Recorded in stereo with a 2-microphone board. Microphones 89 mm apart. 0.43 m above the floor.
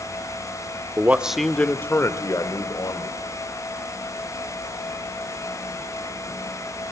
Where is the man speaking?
25° right (ahead or behind), 0.9 m; by 3.2 s 55° left (ahead or behind), 1.9 m.